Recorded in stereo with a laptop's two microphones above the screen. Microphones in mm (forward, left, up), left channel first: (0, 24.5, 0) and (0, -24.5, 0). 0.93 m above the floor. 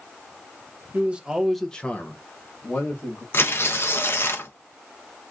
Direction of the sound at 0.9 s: 35° right (ahead or behind).